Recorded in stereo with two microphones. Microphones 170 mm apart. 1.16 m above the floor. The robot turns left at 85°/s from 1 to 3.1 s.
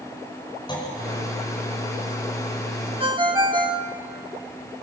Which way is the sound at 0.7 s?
30° left (ahead or behind).